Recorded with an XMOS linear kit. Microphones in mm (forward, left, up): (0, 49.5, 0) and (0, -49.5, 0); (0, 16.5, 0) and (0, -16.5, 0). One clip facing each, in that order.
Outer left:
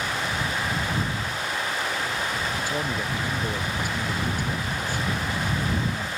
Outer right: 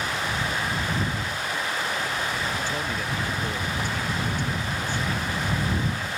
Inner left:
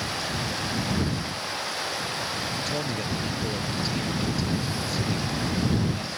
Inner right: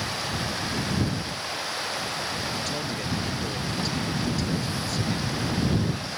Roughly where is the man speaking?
Centre.